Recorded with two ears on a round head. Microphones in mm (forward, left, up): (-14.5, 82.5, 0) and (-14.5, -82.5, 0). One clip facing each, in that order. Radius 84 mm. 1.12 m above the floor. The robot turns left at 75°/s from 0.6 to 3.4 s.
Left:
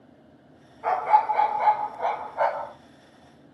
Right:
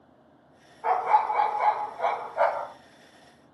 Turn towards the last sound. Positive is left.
turn(degrees=-125)